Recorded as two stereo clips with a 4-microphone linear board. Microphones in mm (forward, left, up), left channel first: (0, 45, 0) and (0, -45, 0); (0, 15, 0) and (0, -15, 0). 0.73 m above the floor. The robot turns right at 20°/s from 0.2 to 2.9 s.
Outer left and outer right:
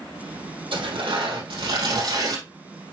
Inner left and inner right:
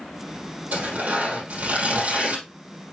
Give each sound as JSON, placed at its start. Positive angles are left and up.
{"t": 0.7, "sound": "tearing paper", "azimuth_deg": -90, "distance_m": 5.0}